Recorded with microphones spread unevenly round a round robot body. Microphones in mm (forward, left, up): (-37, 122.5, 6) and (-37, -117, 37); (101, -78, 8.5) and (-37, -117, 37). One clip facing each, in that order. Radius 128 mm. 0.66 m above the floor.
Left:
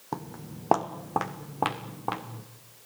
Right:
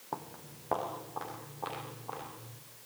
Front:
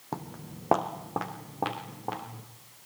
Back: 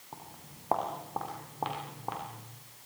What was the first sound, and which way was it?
Footsteps, 40° left.